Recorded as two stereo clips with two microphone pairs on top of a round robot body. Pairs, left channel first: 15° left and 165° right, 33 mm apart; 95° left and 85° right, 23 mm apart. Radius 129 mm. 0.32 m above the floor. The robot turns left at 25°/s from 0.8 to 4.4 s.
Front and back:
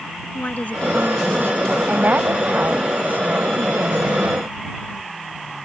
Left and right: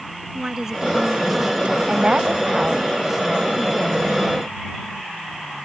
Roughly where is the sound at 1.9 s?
Behind right.